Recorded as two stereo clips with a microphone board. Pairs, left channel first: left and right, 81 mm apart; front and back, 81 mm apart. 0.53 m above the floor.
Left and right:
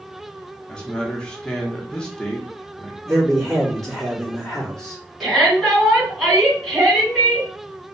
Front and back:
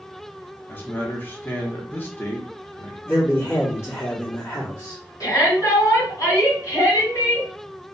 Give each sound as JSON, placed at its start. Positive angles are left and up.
{"t": 0.7, "sound": "a man speaking", "azimuth_deg": 25, "distance_m": 0.7}
{"t": 3.0, "sound": "a man speaking", "azimuth_deg": 10, "distance_m": 1.3}
{"t": 5.2, "sound": "a shout", "azimuth_deg": 0, "distance_m": 1.8}